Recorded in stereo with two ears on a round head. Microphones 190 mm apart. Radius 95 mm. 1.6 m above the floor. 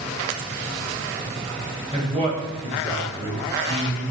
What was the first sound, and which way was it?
A man speaking, 35° right (ahead or behind).